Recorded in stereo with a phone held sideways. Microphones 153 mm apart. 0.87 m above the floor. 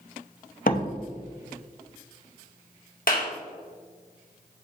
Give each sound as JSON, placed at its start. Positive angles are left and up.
{"t": 0.7, "sound": "a door slam", "side_deg": 65, "distance_m": 0.7}
{"t": 3.1, "sound": "a clap", "side_deg": 70, "distance_m": 1.5}